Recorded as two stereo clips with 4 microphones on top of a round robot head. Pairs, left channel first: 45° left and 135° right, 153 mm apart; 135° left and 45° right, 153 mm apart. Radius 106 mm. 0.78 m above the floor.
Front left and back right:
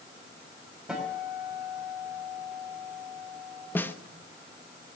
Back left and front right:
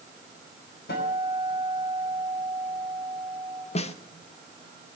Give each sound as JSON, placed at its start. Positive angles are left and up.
{"t": 0.9, "sound": "a guitar", "azimuth_deg": 140, "distance_m": 5.0}
{"t": 3.8, "sound": "a snare drum", "azimuth_deg": 115, "distance_m": 1.1}